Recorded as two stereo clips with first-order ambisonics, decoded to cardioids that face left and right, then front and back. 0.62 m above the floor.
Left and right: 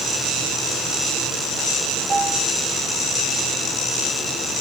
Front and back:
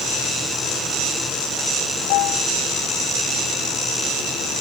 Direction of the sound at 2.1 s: 15° right.